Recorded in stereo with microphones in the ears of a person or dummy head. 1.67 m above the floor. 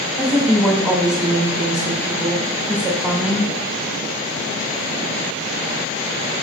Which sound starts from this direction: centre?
A woman speaking, at 0.2 s.